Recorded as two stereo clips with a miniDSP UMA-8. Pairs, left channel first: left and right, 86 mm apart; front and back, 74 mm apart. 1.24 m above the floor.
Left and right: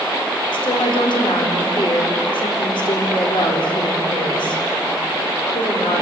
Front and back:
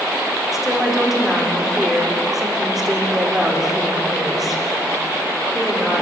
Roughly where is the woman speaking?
Left.